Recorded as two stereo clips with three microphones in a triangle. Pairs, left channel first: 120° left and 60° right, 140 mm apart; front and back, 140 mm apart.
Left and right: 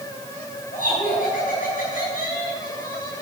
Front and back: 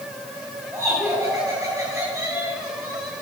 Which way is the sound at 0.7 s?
110° left.